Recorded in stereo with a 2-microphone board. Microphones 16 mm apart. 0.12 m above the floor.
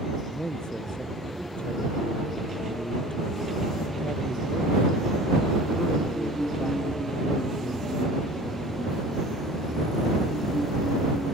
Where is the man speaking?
50° left (ahead or behind); by 9.0 s 80° left.